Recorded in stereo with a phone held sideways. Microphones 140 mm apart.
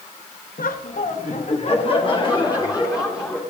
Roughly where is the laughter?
Left.